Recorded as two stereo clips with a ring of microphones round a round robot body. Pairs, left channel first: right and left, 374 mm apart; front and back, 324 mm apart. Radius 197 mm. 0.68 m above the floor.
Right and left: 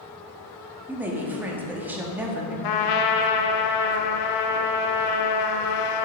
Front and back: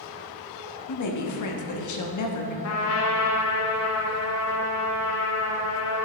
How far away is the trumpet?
About 0.6 m.